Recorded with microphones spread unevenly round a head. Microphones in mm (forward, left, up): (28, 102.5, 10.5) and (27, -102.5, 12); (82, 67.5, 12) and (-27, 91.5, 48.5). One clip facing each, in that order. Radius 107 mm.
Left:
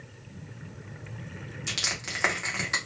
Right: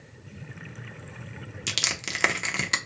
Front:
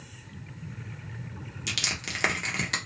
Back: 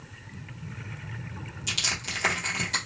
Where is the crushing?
40° right, 0.7 m.